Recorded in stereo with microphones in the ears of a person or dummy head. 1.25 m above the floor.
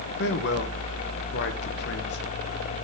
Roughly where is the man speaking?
Left.